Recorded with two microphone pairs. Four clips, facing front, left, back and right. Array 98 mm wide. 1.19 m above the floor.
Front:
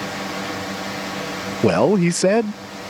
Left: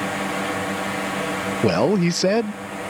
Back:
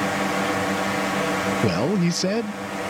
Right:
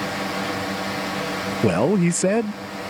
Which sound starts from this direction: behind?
A drone, at 0.0 s.